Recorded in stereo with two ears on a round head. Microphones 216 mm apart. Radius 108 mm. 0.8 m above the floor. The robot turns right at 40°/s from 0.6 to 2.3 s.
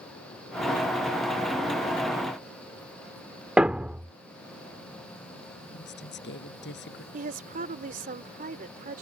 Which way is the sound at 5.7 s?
50° left (ahead or behind).